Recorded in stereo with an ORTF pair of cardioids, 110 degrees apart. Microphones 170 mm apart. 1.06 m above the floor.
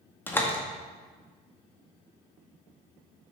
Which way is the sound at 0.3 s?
10° left.